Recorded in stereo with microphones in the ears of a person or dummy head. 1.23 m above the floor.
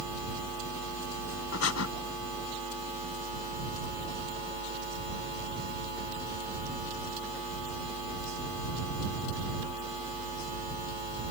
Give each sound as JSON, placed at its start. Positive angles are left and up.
{"t": 1.5, "sound": "breathing", "side_deg": 85}